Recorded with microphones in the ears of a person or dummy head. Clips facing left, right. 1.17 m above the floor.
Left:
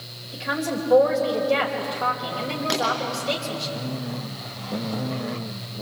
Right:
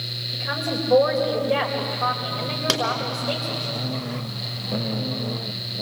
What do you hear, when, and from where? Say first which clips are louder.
0.3 s a woman speaking: left 1 dB; centre (ahead or behind), 5 m
2.7 s a pop: right 1 dB; 80° right, 5.5 m